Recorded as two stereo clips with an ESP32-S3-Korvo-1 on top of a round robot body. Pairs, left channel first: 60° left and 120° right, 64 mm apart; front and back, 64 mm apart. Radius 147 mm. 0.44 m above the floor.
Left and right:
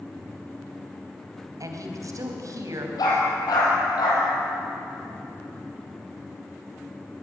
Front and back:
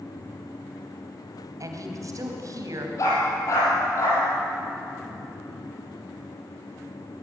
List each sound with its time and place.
1.6 s a woman speaking: 150° right, 4 m
3.0 s a dog barking: 40° left, 7 m